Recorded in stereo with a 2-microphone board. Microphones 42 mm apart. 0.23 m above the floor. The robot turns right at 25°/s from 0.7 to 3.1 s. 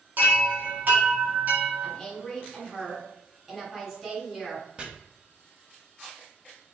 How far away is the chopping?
About 0.7 m.